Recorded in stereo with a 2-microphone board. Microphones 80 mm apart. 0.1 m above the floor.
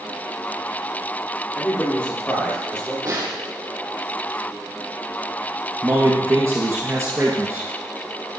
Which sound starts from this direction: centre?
A man speaking, at 1.6 s.